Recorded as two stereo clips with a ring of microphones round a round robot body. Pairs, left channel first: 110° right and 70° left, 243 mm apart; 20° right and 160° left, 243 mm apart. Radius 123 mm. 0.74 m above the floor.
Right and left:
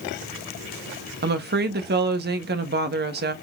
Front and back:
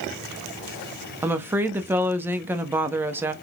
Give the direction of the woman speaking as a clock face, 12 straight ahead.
9 o'clock.